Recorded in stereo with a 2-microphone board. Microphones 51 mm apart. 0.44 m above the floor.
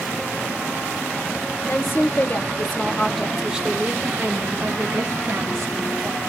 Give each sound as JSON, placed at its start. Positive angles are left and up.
{"t": 1.6, "sound": "a woman speaking", "side_deg": 55, "distance_m": 1.3}